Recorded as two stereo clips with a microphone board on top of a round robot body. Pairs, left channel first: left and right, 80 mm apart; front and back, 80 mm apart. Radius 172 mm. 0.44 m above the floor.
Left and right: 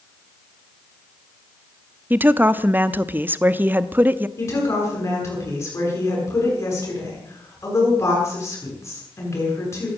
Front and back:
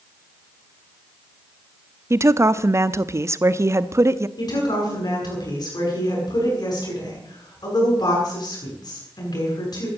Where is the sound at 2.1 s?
145° right, 1.0 m.